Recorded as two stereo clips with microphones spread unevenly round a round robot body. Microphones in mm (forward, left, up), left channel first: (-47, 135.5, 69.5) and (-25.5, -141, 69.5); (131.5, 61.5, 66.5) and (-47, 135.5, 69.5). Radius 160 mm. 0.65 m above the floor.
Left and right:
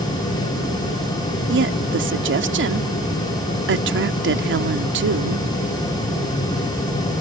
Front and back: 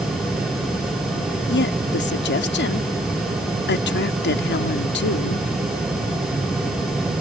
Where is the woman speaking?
40° right.